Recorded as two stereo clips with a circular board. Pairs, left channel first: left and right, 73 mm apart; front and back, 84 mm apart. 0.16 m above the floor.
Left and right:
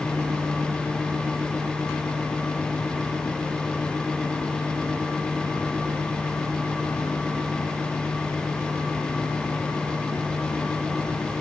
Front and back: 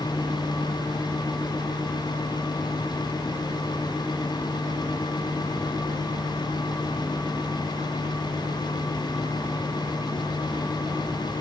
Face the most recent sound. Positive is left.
No sound to turn to.